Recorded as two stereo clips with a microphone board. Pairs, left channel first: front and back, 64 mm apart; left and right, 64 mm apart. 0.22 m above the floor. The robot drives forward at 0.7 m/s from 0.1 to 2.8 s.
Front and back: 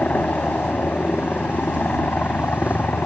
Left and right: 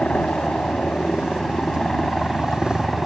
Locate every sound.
0.0 s a helicopter: 35° left; by 3.1 s 10° left